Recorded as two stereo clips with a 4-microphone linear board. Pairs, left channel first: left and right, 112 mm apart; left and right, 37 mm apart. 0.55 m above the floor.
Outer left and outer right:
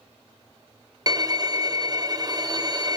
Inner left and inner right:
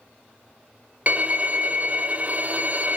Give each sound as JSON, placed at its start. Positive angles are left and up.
{"t": 1.1, "sound": "a violin", "side_deg": -35, "distance_m": 0.7}